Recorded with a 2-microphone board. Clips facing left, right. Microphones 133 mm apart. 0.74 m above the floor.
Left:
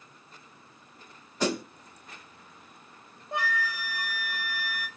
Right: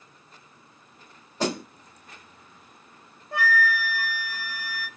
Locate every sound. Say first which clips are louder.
1.4 s a snare drum: right 1 dB; 30° right (ahead or behind), 2.5 m
3.3 s a flute: right 6 dB; 20° left (ahead or behind), 0.8 m